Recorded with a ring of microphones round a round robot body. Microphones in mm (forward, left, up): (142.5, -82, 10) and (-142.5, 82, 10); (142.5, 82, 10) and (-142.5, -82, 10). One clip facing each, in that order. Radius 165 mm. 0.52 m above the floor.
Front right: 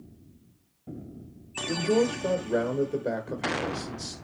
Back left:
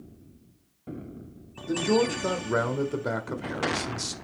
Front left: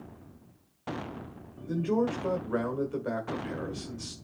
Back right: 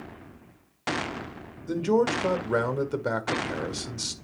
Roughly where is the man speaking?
Behind right.